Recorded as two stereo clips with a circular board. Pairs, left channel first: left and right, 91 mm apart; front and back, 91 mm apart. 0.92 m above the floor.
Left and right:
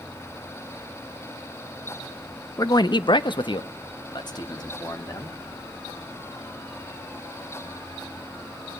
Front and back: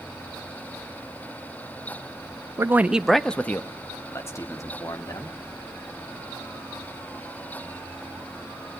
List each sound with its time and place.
2.6 s a man speaking: 130° left, 0.6 m; by 5.3 s 50° left, 2 m